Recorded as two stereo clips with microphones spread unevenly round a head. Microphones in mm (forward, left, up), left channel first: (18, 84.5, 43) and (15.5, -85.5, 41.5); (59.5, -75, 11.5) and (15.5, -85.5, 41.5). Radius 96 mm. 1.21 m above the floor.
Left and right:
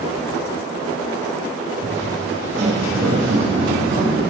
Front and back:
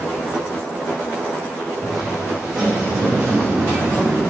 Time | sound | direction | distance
1.8 | footsteps | 115° right | 2 m